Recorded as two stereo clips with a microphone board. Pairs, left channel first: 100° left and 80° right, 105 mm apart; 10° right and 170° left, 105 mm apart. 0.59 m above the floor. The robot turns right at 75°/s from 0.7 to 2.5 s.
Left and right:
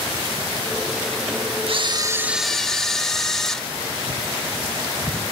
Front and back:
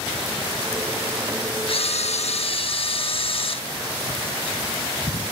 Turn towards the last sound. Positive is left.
turn(degrees=15)